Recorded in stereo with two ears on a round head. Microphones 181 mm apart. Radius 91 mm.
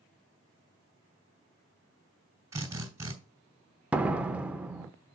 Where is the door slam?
5° right (ahead or behind), 0.6 m.